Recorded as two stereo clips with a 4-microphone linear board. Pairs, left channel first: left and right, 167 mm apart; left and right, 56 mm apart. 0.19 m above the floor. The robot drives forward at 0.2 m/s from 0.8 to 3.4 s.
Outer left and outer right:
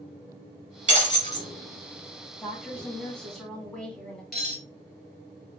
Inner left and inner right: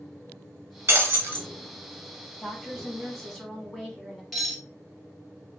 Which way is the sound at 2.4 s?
5° left (ahead or behind).